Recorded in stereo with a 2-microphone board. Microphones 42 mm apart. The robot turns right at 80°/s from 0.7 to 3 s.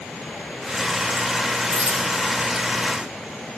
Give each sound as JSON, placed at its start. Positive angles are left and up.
{"t": 1.7, "sound": "a dropped coin", "side_deg": -25, "distance_m": 4.0}